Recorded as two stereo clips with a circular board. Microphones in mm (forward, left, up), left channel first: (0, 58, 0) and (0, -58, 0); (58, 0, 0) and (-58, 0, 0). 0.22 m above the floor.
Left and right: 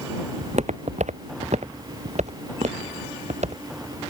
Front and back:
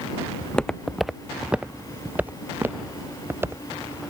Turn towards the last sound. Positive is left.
turn(degrees=-110)